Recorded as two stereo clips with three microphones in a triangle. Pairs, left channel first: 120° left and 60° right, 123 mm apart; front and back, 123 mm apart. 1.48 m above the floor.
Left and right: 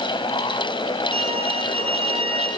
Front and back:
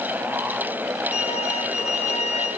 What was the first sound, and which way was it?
A violin, 25° right.